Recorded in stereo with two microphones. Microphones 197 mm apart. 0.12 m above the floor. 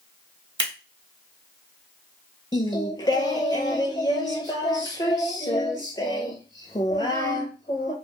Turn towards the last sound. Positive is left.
turn(degrees=20)  # may be behind; listen again after turning